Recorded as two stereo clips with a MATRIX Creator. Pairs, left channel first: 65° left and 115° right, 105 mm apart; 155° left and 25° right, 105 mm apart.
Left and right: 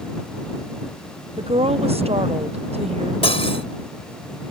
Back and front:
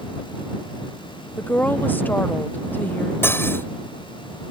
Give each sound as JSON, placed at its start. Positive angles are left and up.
{"t": 1.4, "sound": "a woman speaking", "azimuth_deg": -130}
{"t": 3.2, "sound": "cutlery clinking", "azimuth_deg": 90}